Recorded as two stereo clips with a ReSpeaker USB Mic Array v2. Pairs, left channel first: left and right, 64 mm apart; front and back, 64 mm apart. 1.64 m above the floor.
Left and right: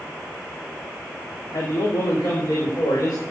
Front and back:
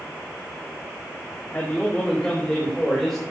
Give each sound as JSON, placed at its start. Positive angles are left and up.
{"t": 1.5, "sound": "a man speaking", "azimuth_deg": 65, "distance_m": 3.5}